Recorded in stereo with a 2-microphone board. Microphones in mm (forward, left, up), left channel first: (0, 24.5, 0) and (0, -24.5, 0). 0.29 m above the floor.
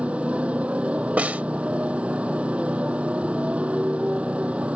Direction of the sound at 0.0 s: 25° right (ahead or behind).